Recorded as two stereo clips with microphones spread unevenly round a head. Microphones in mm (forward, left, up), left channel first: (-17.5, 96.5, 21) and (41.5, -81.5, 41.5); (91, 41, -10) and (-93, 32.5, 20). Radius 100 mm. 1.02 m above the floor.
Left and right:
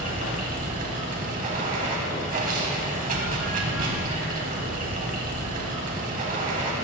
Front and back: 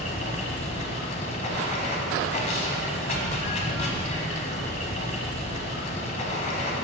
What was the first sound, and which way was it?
Running water, 50° right.